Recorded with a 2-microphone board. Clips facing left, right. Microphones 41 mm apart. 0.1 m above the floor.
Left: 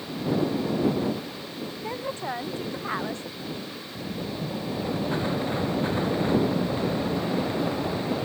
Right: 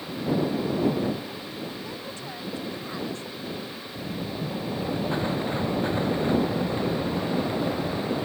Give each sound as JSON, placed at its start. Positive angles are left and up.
{"t": 1.8, "sound": "a woman speaking", "side_deg": 35}